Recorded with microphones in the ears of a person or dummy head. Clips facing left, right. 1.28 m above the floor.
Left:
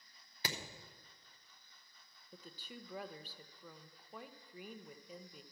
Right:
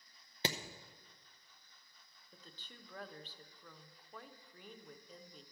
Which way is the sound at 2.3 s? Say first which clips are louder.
Left 7 dB; 10° left (ahead or behind).